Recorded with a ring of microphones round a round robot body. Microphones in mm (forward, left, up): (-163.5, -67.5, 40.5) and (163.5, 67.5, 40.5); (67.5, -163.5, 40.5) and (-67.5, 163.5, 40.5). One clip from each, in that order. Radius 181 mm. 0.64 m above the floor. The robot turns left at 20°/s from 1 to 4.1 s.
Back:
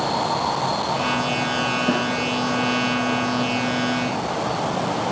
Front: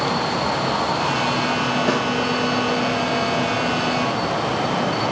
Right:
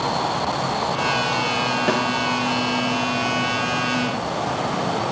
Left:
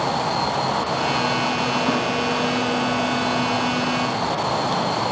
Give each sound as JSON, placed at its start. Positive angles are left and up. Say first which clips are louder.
{"t": 1.9, "sound": "a snare drum", "louder": "front 1 dB, right 1 dB", "azimuth_deg": -25, "distance_m": 0.8}